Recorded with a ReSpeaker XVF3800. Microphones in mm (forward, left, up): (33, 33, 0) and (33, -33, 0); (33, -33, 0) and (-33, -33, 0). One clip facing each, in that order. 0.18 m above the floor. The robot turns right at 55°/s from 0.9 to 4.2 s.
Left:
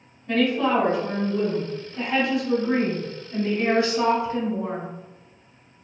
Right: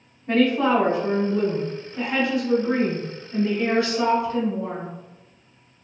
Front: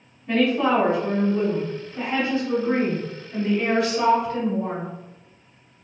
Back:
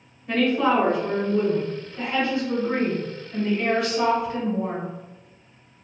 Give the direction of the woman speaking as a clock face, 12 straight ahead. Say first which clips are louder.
Right 2 dB, front 1 dB; 3 o'clock.